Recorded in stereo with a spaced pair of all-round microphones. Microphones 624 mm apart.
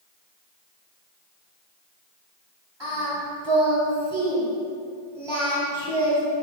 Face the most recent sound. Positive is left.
turn(degrees=-45)  # may be behind; listen again after turning